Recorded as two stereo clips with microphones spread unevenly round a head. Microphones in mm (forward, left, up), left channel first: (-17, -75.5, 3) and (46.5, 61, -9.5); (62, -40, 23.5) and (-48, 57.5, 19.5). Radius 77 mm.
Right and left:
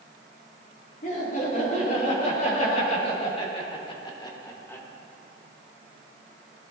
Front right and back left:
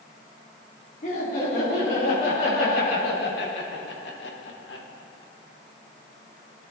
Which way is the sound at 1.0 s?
80° right.